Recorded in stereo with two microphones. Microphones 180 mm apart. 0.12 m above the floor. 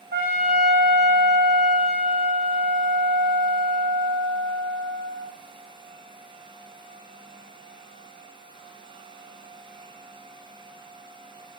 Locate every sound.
0.1 s a trumpet: 65° right (ahead or behind), 1.7 m